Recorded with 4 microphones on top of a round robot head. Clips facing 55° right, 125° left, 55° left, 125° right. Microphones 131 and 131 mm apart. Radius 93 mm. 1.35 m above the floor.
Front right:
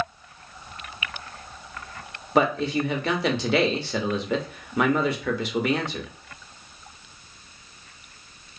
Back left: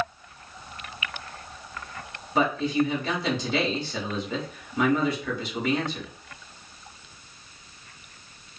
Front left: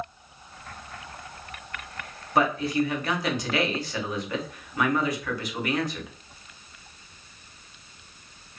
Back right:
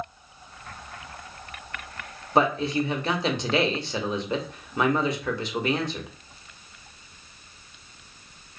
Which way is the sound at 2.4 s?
60° right.